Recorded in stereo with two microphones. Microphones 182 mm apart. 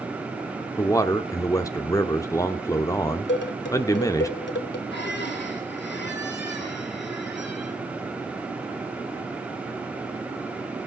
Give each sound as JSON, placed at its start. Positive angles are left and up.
{"t": 0.8, "sound": "a man speaking", "side_deg": 15, "distance_m": 0.7}
{"t": 3.3, "sound": "dishes clattering", "side_deg": 70, "distance_m": 1.5}
{"t": 4.9, "sound": "a squeak", "side_deg": 65, "distance_m": 8.0}